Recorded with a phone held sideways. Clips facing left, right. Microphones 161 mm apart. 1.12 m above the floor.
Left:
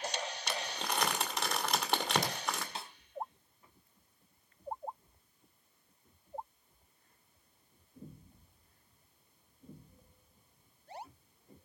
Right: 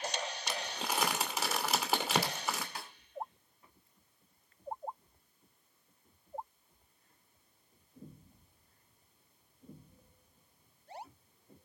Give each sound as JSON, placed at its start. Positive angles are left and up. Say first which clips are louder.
{"t": 0.5, "sound": "crumpling", "louder": "left 1 dB", "side_deg": -5, "distance_m": 2.5}
{"t": 2.8, "sound": "a snare drum", "louder": "left 2 dB", "side_deg": 25, "distance_m": 1.7}